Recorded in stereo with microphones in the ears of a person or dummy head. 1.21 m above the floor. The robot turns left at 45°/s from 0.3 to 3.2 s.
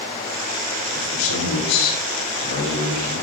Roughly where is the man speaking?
Behind left.